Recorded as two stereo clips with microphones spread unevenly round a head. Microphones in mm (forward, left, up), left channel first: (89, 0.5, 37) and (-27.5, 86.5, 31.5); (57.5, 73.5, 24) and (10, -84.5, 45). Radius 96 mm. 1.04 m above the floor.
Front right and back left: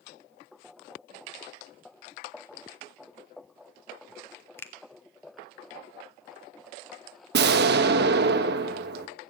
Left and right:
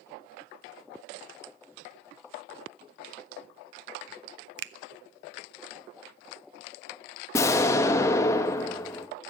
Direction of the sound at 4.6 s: 115° right.